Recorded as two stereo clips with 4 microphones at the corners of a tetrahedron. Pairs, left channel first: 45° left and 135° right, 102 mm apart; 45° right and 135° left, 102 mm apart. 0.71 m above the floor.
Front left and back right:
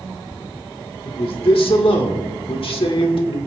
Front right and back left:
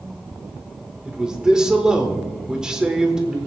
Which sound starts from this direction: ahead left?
A man speaking, at 1.1 s.